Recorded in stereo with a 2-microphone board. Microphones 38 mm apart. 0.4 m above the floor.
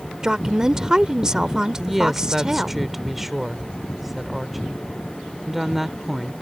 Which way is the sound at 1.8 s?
5° right (ahead or behind).